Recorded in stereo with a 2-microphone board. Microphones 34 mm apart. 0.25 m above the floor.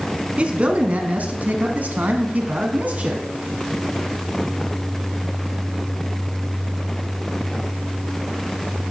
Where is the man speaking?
35° right (ahead or behind), 1.9 m; by 3.2 s 50° right (ahead or behind), 2 m.